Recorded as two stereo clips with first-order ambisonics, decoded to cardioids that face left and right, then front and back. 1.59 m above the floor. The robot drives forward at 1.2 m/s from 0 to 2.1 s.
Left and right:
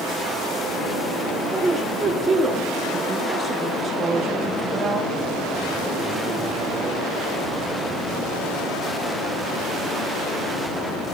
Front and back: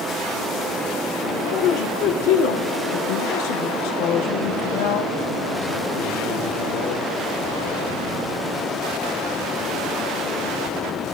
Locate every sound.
1.3 s a man speaking: 10° right, 2.5 m; by 7.1 s 15° right, 1.5 m